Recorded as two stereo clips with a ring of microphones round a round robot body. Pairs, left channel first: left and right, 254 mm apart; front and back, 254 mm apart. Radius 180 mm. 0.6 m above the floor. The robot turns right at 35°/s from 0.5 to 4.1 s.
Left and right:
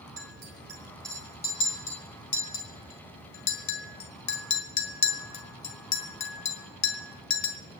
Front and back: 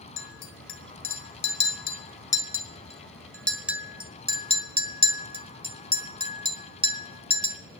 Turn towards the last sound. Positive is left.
turn(degrees=110)